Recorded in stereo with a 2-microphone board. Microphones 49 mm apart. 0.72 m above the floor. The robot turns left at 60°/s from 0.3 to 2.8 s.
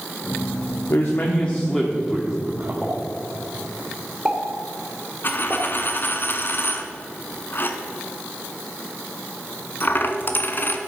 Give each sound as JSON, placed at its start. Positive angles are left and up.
{"t": 0.9, "sound": "a man speaking", "azimuth_deg": 60, "distance_m": 1.3}
{"t": 2.8, "sound": "a pop", "side_deg": 0, "distance_m": 2.5}
{"t": 5.2, "sound": "a dropped coin", "side_deg": 45, "distance_m": 1.2}